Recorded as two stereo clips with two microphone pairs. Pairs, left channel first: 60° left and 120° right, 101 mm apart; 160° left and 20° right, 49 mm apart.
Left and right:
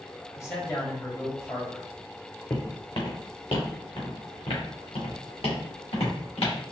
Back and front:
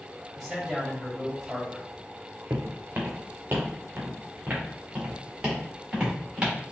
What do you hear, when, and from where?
0.3 s a man speaking: 65° left, 1.3 m
2.5 s footsteps: 20° left, 1.0 m; by 6.5 s 50° left, 3 m